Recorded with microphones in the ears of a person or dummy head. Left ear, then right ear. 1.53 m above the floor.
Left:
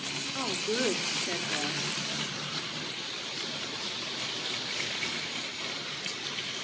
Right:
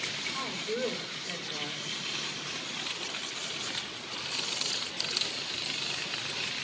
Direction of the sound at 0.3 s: 50° left (ahead or behind).